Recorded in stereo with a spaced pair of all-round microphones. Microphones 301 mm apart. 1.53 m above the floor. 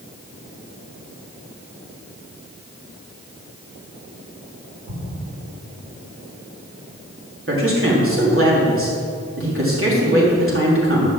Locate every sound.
4.9 s an explosion: 75° right (ahead or behind), 3 m
7.5 s a man speaking: 45° right (ahead or behind), 3.5 m